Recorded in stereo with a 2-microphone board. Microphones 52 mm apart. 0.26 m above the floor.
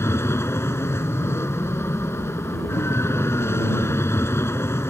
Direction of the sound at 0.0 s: 55° left (ahead or behind).